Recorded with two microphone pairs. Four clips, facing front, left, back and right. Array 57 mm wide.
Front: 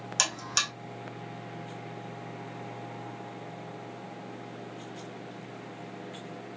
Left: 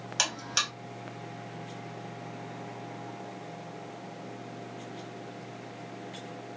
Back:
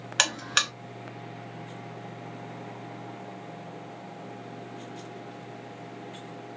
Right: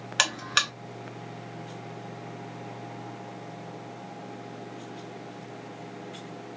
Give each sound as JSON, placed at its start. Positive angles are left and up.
{"t": 0.2, "sound": "a buzzer", "azimuth_deg": -130, "distance_m": 0.6}